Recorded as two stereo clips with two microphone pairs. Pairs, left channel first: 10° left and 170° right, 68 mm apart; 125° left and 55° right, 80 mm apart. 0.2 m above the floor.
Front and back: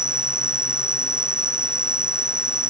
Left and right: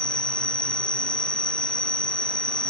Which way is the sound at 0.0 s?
115° left.